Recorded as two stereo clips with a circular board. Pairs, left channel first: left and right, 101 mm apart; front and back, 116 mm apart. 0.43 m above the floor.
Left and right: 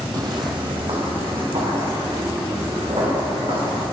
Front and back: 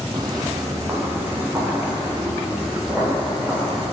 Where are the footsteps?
135° right, 0.9 m; by 3.8 s 100° right, 4 m.